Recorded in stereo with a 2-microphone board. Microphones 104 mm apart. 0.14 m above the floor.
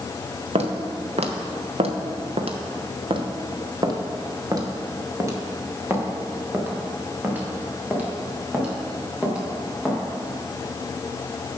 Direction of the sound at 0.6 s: 80° right.